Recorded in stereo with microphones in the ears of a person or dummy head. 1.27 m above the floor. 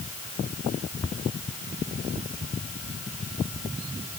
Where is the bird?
No bird in this recording.